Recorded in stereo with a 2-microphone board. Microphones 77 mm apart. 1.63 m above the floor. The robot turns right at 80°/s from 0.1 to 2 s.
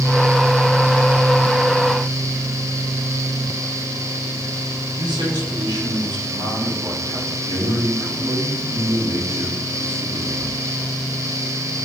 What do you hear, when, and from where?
5.0 s a man speaking: 85° right, 5.5 m
7.4 s a man speaking: 70° right (ahead or behind), 4.5 m